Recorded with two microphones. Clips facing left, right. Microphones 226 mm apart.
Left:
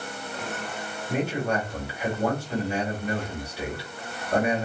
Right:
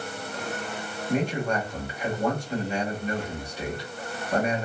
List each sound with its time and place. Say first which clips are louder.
1.1 s a man speaking: right 1 dB; 5° left (ahead or behind), 1.8 m